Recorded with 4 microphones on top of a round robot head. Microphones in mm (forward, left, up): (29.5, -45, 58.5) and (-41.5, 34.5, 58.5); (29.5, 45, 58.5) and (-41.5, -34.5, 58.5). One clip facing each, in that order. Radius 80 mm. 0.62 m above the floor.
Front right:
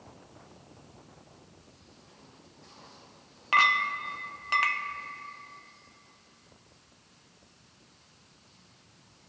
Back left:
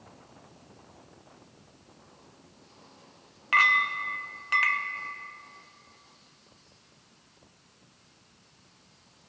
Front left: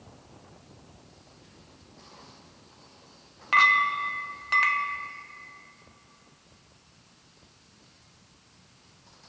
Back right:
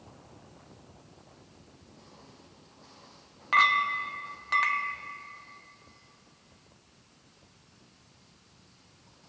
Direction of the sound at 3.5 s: 45° right.